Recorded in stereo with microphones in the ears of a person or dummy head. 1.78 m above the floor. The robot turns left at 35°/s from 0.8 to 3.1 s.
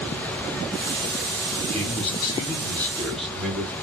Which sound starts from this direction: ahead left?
A man speaking, at 1.7 s.